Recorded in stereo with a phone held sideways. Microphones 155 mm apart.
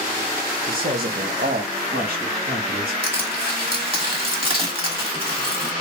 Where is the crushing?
35° right (ahead or behind), 1.5 m.